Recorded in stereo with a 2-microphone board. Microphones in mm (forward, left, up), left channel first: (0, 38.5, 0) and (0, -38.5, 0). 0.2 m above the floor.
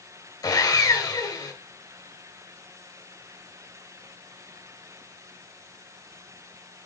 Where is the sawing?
55° left (ahead or behind), 3 m.